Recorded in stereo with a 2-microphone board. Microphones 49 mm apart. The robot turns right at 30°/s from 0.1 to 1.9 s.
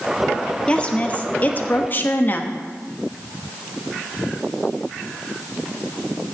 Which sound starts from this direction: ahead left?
A woman speaking, at 0.7 s.